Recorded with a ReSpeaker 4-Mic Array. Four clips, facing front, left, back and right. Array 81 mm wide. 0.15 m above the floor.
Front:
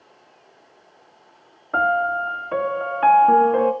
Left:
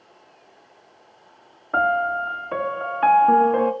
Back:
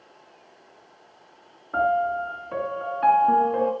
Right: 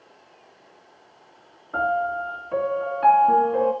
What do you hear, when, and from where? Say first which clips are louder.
1.7 s a piano: left 3 dB, front 3 dB; 50° left, 1.4 m